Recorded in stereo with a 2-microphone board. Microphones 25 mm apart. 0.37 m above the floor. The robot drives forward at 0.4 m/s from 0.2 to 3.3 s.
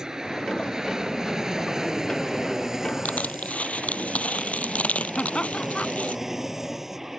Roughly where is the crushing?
Left.